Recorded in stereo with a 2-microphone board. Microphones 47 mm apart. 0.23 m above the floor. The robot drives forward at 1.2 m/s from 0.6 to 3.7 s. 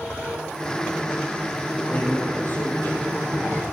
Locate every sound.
1.9 s a man speaking: 40° left (ahead or behind), 9 m; by 3.6 s 50° left (ahead or behind), 7.5 m